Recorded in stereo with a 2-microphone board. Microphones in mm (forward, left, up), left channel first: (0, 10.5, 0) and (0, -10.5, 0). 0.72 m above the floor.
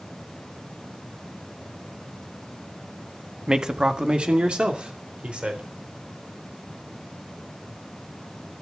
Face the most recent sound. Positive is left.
turn(degrees=-70)  # may be behind; listen again after turning